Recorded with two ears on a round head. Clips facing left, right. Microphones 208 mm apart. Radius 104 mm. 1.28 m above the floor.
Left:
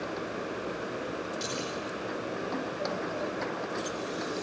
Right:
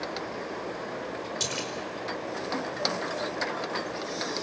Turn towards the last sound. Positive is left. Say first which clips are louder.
# even
turn(degrees=-65)  # may be behind; listen again after turning